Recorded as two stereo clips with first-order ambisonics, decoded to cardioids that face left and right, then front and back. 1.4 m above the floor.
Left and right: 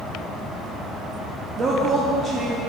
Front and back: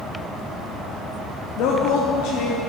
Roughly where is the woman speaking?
Ahead.